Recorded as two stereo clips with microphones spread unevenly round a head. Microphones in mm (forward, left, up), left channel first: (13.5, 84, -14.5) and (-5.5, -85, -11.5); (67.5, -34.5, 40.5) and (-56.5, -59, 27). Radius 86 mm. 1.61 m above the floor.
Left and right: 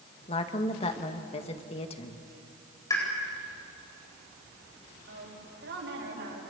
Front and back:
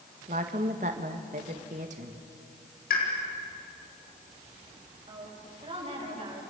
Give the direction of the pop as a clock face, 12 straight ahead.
12 o'clock.